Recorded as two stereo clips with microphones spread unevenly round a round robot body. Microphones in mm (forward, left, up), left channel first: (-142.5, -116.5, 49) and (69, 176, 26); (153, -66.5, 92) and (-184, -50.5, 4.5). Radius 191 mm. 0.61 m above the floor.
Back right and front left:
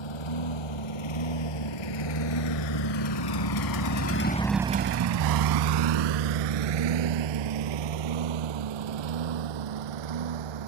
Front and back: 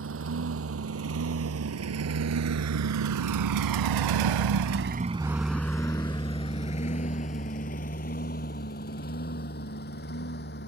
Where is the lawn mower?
130° right; by 10.7 s 60° left.